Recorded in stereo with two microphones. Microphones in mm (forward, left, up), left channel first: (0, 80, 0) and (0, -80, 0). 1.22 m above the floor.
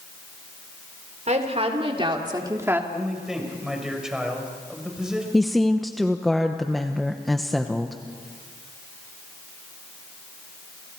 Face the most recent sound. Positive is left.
turn(degrees=0)  # may be behind; listen again after turning